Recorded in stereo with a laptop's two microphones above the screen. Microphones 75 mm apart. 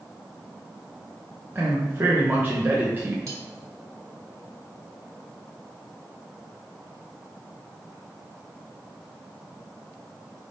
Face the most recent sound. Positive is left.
turn(degrees=-50)  # may be behind; listen again after turning